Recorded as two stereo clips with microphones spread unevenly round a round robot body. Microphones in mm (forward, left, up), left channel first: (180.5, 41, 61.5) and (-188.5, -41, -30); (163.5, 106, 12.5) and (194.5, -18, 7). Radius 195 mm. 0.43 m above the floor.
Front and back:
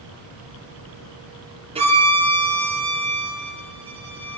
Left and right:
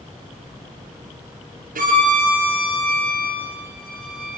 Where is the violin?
90° right, 4 m.